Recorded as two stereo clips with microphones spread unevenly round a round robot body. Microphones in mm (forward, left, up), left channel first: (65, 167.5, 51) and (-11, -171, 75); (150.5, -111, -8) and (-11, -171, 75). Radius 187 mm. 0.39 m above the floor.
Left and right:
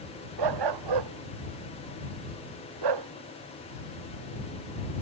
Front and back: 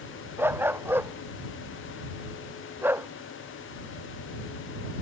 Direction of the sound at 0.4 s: 85° right.